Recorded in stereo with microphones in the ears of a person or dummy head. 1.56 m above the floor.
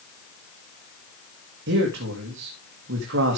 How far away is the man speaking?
About 2.5 m.